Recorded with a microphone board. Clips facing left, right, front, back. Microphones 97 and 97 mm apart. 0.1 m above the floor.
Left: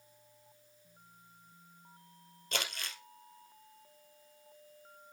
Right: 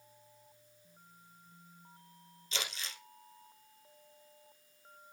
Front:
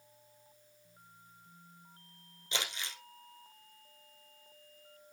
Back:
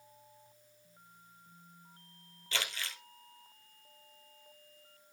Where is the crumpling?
70° left, 1.9 m.